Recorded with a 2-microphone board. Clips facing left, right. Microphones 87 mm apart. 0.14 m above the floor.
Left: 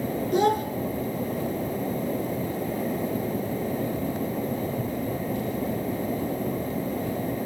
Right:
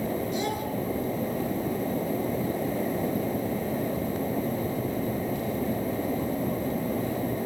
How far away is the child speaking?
About 1.6 m.